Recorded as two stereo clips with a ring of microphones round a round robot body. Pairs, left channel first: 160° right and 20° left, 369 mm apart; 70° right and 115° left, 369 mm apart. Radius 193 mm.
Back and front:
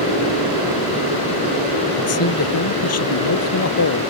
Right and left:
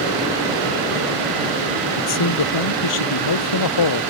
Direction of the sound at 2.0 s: 105° right.